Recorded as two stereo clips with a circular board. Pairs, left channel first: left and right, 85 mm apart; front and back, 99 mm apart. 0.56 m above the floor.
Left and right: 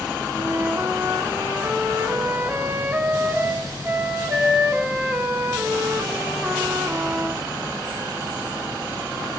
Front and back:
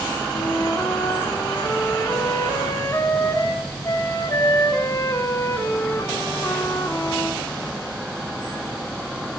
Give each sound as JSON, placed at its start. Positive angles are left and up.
{"t": 0.3, "sound": "a flute", "azimuth_deg": -35, "distance_m": 1.0}